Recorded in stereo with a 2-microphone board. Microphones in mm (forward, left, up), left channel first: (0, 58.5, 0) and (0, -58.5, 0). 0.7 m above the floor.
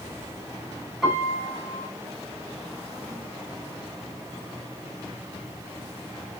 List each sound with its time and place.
1.0 s a piano: centre (ahead or behind), 6.5 m